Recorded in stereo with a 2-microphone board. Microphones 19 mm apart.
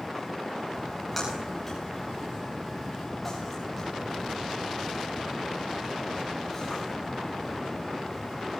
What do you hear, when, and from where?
0.7 s a splash: centre (ahead or behind), 7.5 m